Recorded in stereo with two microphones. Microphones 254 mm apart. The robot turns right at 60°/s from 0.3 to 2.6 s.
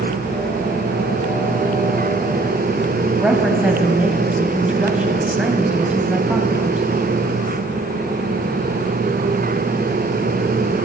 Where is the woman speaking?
5° right (ahead or behind), 1.6 m.